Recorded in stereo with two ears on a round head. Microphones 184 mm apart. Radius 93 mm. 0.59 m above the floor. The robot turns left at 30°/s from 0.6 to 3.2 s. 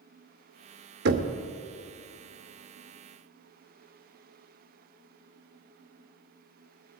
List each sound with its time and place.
1.1 s knocking: 55° right (ahead or behind), 0.9 m; by 1.3 s 60° right (ahead or behind), 0.9 m